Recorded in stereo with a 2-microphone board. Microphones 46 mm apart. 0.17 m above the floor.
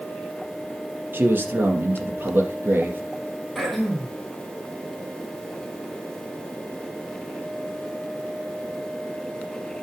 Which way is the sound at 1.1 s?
45° right (ahead or behind).